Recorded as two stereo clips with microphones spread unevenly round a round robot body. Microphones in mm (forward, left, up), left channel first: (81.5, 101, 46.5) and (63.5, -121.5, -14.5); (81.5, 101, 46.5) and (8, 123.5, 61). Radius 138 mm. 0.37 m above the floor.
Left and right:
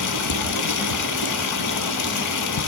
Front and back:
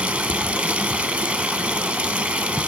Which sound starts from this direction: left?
Running water, at 0.0 s.